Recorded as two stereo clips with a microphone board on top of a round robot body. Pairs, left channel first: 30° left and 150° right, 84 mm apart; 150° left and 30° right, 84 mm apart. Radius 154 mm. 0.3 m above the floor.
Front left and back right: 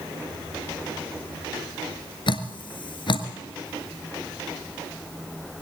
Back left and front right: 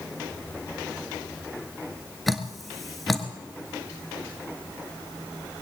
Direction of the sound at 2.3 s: 60° left.